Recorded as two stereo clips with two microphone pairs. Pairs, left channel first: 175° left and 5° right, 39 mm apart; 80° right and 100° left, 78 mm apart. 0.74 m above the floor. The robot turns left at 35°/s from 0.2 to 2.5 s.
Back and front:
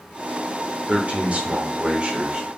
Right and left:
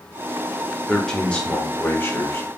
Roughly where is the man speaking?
Ahead.